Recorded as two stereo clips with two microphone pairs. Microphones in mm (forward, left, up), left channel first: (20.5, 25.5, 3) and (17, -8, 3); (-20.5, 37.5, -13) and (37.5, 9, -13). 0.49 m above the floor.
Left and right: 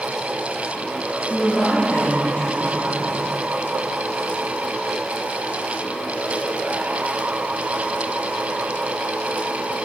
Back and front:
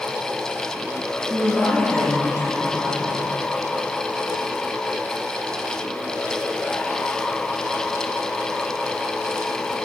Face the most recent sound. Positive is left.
turn(degrees=105)